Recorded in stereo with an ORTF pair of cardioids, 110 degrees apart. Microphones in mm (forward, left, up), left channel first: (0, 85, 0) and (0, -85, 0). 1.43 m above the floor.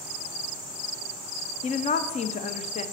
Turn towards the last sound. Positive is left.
turn(degrees=45)